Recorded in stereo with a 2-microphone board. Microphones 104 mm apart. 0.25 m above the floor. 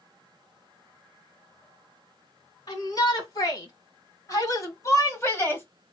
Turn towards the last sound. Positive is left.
turn(degrees=20)  # may be behind; listen again after turning